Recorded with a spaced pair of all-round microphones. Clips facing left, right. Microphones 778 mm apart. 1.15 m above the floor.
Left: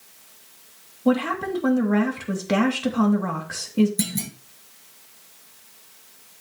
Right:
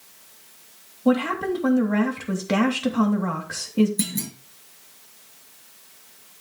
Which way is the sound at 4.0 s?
25° left (ahead or behind).